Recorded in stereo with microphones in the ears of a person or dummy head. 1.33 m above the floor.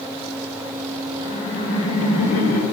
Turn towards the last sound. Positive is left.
turn(degrees=65)  # may be behind; listen again after turning